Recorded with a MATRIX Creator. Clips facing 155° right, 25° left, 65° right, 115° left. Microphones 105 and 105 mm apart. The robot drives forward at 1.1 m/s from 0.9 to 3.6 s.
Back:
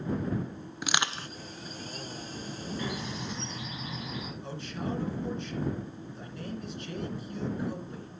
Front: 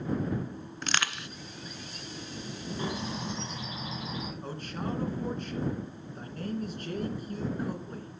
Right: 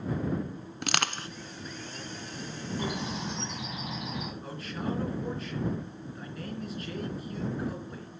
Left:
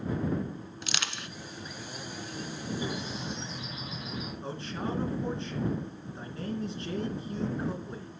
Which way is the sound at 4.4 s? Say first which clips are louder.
Back 2 dB, left 1 dB; 55° left.